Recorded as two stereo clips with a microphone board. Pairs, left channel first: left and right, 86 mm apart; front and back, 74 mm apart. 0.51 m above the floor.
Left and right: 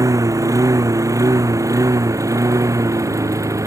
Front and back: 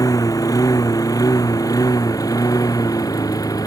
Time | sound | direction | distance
0.0 | a lawn mower | 40° right | ?